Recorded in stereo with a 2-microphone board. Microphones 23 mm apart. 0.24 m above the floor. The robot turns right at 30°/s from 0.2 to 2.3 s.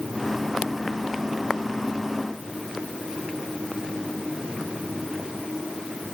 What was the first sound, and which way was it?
Only background noise.